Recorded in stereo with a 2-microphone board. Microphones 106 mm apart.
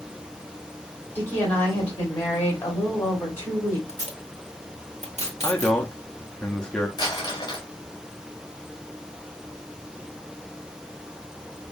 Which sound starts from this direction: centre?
A man speaking, at 5.4 s.